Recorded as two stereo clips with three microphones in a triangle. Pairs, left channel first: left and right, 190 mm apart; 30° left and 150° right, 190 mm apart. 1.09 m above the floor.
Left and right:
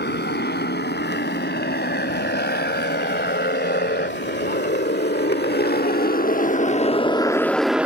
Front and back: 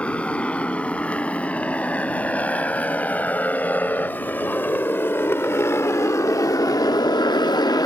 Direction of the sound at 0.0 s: 115° left.